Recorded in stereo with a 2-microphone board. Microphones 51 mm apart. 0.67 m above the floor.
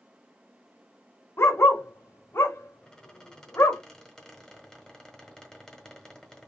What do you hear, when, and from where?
1.4 s a dog barking: 55° left (ahead or behind), 1.1 m
2.8 s a squeak: 10° left (ahead or behind), 1.3 m